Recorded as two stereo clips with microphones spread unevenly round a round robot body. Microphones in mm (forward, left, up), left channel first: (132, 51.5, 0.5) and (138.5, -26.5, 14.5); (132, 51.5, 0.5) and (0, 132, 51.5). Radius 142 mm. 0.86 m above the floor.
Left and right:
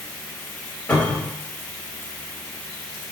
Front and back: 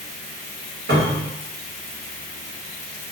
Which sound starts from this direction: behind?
A cupboard door, at 0.9 s.